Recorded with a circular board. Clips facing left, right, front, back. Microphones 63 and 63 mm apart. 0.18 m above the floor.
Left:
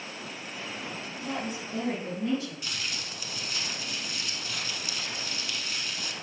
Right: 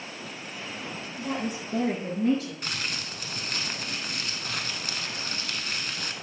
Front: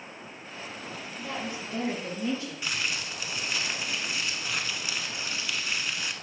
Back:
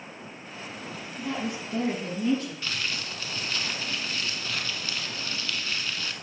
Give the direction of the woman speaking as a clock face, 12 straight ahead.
3 o'clock.